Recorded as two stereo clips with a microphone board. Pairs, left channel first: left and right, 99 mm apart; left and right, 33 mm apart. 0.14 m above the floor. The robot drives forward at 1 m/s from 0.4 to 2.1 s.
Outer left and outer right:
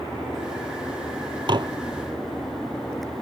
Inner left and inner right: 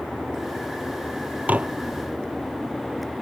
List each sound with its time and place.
1.5 s dishes clattering: 50° right (ahead or behind); by 1.7 s 45° right (ahead or behind)